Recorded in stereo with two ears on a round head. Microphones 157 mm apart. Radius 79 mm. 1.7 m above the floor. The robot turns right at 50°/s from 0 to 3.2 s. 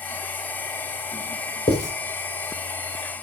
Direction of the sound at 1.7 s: 35° left (ahead or behind).